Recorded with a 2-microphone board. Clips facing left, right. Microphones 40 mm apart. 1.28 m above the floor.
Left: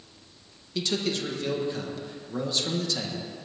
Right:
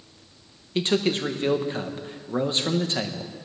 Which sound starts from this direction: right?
A man speaking, at 0.8 s.